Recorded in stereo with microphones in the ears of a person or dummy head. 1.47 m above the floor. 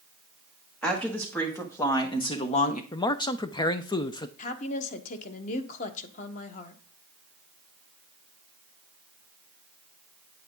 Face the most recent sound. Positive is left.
turn(degrees=45)  # may be behind; listen again after turning